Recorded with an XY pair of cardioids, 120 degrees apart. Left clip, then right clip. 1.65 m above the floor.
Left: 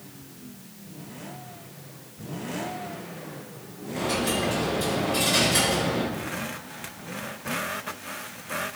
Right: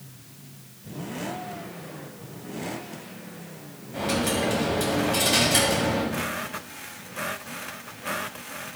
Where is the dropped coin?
65° right, 5 m.